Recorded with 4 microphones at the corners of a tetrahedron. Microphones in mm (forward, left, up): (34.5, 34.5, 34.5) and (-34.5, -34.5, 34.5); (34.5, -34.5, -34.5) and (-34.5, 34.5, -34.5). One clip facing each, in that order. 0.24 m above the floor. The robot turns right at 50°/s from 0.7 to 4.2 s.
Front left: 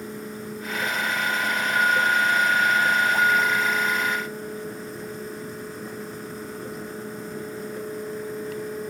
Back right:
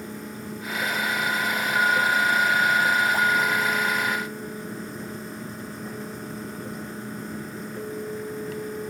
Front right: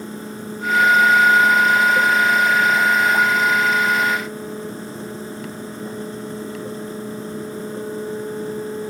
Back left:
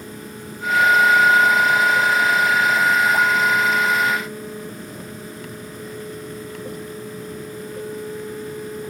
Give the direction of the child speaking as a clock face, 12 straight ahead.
I don't hear a child speaking.